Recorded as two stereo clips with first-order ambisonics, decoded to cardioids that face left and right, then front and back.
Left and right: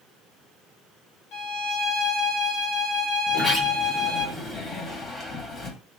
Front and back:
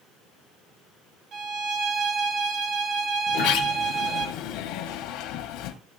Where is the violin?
125° left, 2.5 m.